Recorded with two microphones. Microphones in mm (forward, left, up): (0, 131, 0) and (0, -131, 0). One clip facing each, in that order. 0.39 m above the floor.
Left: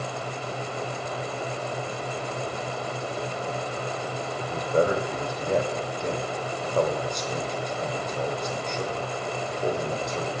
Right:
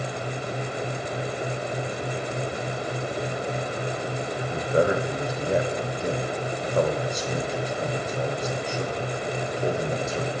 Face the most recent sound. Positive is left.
turn(degrees=-5)  # may be behind; listen again after turning